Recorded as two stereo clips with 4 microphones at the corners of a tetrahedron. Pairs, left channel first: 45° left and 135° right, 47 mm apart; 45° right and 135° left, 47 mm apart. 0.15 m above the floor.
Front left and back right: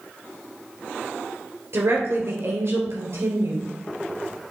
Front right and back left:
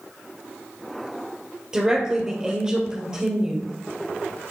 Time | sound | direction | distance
1.7 | a woman speaking | 150° right | 3 m